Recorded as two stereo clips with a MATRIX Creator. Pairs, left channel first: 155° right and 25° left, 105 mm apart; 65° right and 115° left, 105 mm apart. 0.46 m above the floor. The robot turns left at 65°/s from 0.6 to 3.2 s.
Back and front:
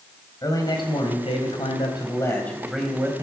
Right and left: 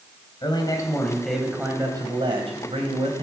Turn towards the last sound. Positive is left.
turn(degrees=80)